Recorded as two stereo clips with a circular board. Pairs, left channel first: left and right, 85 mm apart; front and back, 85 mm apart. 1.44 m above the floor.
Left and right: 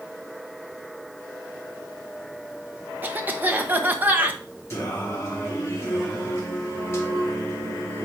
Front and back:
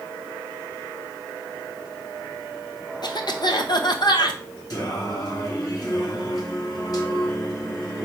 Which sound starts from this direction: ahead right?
A cough, at 3.0 s.